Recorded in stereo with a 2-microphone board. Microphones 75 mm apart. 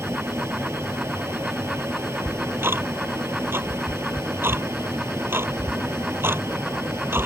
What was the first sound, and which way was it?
An aircraft, 35° right (ahead or behind).